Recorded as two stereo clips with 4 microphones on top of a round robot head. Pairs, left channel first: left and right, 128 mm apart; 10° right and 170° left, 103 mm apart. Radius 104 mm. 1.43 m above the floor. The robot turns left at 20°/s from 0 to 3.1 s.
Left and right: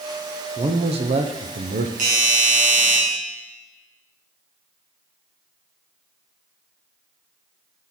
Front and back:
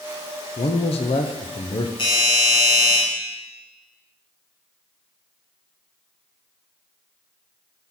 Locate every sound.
0.6 s a man speaking: 35° right, 0.6 m; by 1.9 s 60° right, 0.6 m
2.0 s a doorbell: 60° right, 2.5 m; by 3.0 s 80° right, 2.5 m